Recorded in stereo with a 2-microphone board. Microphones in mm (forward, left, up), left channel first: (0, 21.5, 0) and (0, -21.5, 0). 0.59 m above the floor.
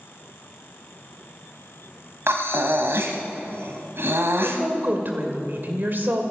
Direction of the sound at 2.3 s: 70° right (ahead or behind).